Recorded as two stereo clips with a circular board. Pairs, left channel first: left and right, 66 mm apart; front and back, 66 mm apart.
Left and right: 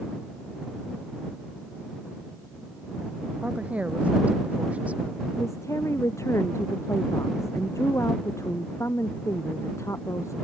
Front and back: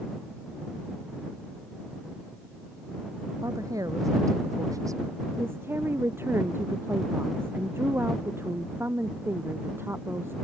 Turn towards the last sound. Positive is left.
turn(degrees=130)